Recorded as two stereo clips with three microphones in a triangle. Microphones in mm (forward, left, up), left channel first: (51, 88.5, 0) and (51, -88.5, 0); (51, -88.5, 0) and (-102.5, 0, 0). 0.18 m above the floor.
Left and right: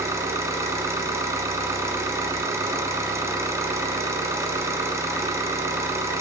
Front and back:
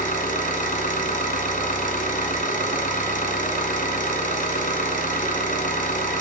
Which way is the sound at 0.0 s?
20° right.